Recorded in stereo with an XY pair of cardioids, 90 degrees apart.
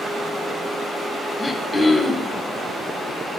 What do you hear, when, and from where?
1.4 s throat clearing: 30° left, 1.2 m